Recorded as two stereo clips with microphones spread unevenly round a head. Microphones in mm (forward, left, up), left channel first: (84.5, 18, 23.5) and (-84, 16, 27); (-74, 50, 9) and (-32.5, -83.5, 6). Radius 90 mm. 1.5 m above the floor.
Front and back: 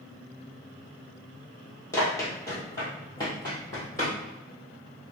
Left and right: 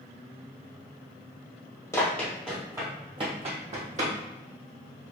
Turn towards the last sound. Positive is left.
turn(degrees=-70)